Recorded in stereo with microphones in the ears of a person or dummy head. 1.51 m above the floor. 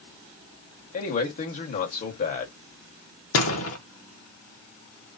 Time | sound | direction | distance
0.9 | a man speaking | 45° left (ahead or behind) | 1.5 m
3.3 | a door slam | 75° left (ahead or behind) | 1.0 m